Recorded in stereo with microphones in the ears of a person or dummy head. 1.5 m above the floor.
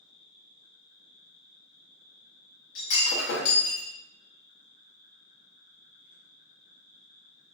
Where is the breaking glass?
60° left (ahead or behind), 1.0 m.